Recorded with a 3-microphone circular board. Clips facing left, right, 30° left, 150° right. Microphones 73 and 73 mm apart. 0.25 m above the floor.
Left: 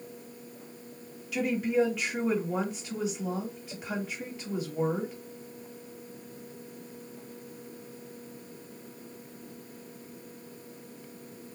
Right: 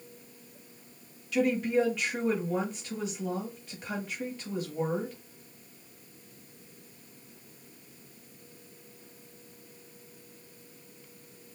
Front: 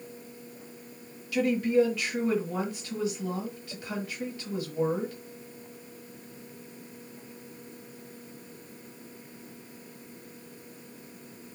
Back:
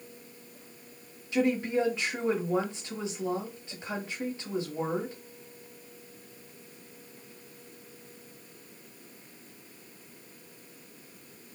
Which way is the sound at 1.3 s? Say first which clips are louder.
Right 1 dB, front 3 dB; 175° left.